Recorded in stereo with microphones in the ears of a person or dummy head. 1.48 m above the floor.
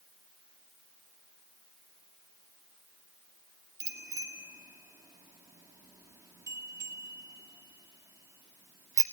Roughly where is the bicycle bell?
Centre.